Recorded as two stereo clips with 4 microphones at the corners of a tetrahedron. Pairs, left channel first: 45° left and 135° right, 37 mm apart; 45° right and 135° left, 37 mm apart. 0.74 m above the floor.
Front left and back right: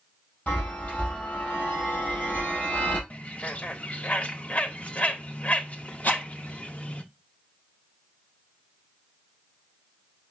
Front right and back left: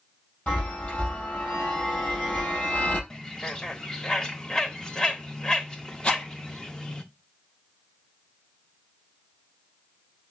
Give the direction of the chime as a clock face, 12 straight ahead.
12 o'clock.